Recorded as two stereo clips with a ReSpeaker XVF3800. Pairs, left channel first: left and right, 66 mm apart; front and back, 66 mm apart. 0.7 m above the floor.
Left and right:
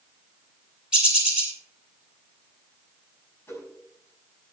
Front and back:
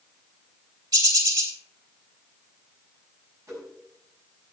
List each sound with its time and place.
0.9 s a bird: 165° right, 2.5 m
3.5 s a whoosh: 140° left, 5.5 m